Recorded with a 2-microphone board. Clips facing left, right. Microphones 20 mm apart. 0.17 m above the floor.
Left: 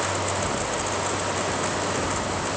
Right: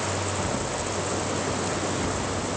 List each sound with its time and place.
Only background noise.